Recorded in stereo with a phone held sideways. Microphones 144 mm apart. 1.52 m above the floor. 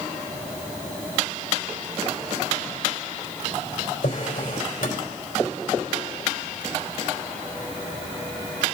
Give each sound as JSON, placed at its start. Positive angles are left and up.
{"t": 4.0, "sound": "a drawer", "side_deg": 75, "distance_m": 3.0}